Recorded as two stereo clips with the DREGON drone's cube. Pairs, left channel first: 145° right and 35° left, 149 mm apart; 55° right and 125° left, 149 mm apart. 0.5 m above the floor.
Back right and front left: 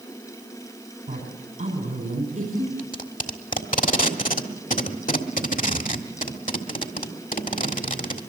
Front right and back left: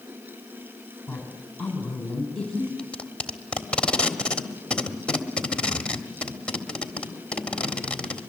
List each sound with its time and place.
1.1 s a woman speaking: 25° left, 3.5 m
2.8 s tape being pulled: 135° right, 1.5 m